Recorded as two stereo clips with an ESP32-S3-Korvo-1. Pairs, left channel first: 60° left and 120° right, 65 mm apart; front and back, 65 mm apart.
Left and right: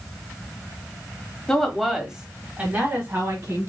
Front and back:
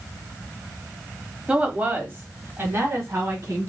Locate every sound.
1.5 s a woman speaking: 125° left, 1.1 m; by 3.7 s 145° right, 1.7 m